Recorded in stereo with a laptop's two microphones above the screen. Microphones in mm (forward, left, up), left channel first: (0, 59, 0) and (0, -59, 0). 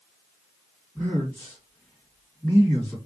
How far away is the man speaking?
About 2.5 m.